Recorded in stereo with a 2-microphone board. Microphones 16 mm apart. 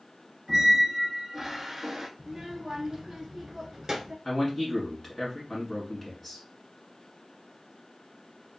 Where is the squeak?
20° right (ahead or behind), 0.7 m.